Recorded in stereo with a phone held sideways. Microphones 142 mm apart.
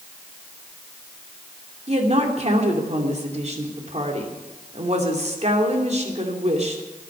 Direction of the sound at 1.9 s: 50° right (ahead or behind).